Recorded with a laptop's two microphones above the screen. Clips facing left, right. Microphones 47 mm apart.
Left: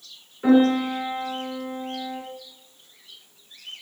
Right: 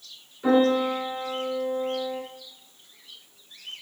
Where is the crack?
No crack in this recording.